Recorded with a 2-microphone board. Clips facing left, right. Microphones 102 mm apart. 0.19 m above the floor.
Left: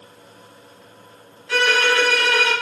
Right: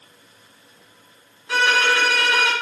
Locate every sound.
1.5 s a violin: 15° right (ahead or behind), 1.4 m